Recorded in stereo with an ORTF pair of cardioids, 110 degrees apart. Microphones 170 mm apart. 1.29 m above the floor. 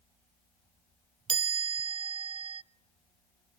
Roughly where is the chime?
Ahead right.